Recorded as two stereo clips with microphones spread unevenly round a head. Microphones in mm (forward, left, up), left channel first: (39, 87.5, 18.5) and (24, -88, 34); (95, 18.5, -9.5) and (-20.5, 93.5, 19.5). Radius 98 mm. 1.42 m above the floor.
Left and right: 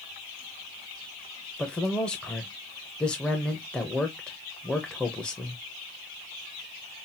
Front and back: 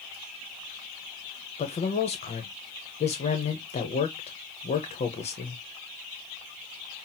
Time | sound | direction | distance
1.6 | a man speaking | straight ahead | 0.9 m